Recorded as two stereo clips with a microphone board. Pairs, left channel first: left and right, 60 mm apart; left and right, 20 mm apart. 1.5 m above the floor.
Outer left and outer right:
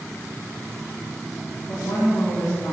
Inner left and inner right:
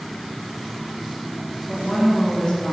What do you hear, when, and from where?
1.7 s a woman speaking: 65° left (ahead or behind), 3 m; by 2.7 s 80° left, 4 m